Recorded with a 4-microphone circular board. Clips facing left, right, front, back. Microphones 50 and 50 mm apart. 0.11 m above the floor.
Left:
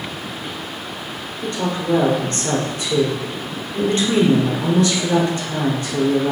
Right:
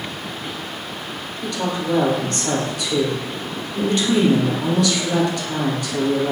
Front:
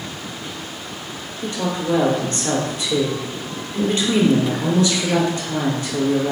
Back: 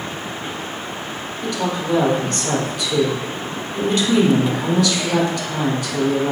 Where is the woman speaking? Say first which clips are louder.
Left 1 dB, even; 45° left, 1.5 m.